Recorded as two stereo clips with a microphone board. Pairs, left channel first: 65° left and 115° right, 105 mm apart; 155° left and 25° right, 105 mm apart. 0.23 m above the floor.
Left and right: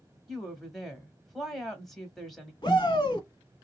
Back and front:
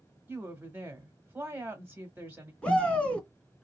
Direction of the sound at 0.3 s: 15° right.